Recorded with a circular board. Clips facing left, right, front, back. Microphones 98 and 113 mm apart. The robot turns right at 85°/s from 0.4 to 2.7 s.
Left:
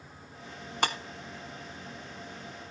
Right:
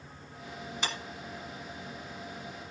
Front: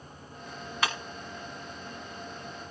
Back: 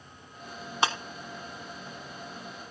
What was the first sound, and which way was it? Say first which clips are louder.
Breaking glass: left 7 dB, back 3 dB; 120° left.